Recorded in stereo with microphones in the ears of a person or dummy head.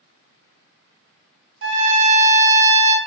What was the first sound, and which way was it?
A trumpet, 65° right (ahead or behind).